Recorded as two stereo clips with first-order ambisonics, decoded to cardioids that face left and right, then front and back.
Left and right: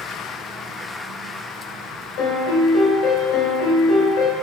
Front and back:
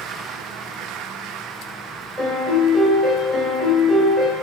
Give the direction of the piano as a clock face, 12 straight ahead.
9 o'clock.